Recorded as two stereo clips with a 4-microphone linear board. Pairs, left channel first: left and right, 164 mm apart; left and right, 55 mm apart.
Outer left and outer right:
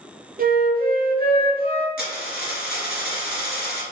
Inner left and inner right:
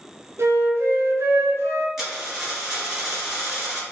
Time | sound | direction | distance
0.4 | a flute | 75° right (ahead or behind) | 0.6 m
2.0 | a dropped coin | 10° right (ahead or behind) | 1.6 m